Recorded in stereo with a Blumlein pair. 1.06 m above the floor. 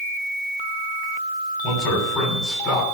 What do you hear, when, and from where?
1.6 s a man speaking: 30° left, 7 m; by 2.8 s 35° left, 8.5 m